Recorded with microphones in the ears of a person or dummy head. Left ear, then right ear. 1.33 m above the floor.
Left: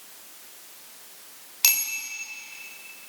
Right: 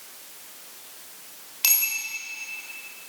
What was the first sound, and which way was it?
A bicycle bell, 10° left (ahead or behind).